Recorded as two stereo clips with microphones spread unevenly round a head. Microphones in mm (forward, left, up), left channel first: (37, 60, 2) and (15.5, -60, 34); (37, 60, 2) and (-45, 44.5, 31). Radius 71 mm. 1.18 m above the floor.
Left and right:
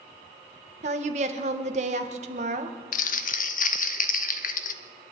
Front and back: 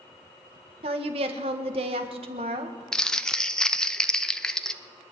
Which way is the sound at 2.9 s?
90° left.